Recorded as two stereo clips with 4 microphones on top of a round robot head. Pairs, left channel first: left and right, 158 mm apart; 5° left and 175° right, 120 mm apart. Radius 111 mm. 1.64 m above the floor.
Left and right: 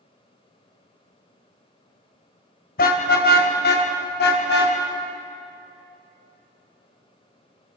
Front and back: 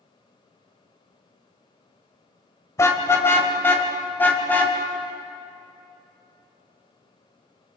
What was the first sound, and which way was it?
A car horn, 70° left.